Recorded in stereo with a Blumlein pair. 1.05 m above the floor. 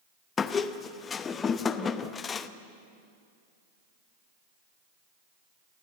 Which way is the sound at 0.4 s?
20° left.